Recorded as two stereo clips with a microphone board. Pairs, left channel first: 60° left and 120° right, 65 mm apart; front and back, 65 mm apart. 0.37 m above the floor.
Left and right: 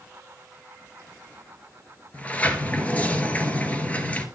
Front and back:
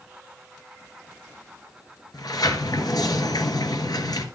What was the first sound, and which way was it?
A sliding door, 10° right.